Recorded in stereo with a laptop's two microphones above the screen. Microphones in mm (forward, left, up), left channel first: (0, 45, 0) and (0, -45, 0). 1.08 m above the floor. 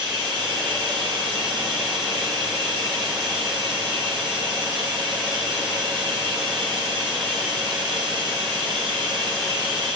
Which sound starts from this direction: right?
Running water, at 0.0 s.